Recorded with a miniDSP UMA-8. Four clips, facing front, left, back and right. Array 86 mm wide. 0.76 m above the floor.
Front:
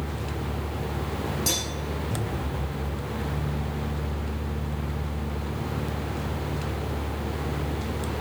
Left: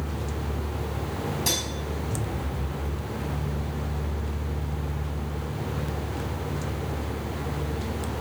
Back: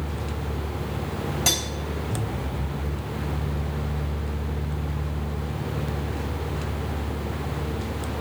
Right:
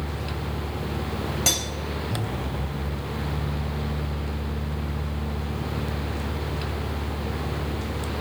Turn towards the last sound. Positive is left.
turn(degrees=-120)